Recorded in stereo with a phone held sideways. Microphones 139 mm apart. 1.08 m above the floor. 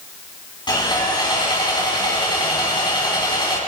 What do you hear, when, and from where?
0.7 s sawing: 30° left (ahead or behind), 7 m